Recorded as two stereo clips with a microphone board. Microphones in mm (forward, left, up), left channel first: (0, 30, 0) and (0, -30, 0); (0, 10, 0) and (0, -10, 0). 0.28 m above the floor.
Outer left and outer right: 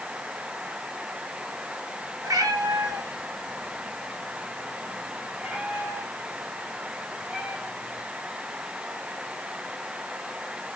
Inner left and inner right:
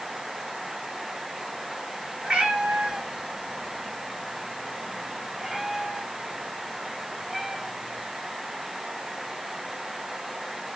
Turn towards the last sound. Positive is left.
turn(degrees=-20)  # may be behind; listen again after turning